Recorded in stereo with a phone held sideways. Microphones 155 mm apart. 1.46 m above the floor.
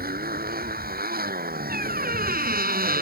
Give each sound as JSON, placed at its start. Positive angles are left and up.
{"t": 0.0, "sound": "a motorcycle", "side_deg": -90}
{"t": 1.7, "sound": "a squeak", "side_deg": -80}